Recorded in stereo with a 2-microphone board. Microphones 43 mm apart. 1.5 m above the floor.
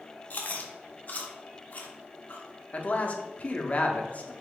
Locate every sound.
0.3 s chewing: 45° left (ahead or behind), 0.6 m
2.7 s a man speaking: 35° left (ahead or behind), 0.6 m